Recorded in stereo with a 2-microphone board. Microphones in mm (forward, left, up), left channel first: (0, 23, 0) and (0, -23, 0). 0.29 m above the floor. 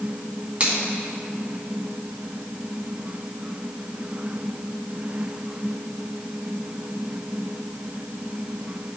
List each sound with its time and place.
0.6 s a finger snap: 35° right (ahead or behind), 2 m